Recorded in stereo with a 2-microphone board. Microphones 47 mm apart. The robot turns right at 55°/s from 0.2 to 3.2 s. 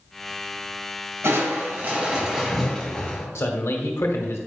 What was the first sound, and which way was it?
Crushing, 70° right.